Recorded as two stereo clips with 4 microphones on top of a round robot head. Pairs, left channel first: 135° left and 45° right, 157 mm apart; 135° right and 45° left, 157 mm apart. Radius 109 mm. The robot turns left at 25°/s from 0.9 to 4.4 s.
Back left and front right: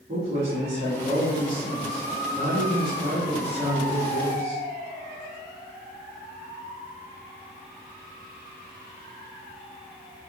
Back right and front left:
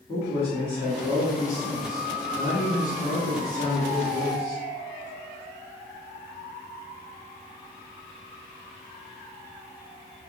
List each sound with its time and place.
0.1 s a man speaking: 85° right, 1.3 m; by 4.6 s 175° right, 1.3 m